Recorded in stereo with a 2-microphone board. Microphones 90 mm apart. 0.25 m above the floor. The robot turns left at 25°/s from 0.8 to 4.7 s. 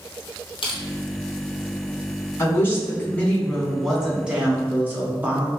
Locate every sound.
0.6 s crushing: 70° left (ahead or behind), 1.4 m
2.4 s a woman speaking: 35° left, 1.8 m; by 5.5 s 25° right, 1.8 m